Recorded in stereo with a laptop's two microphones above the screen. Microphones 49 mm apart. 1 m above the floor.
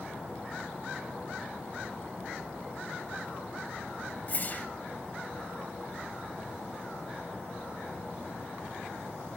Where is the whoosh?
40° left (ahead or behind), 1.0 m.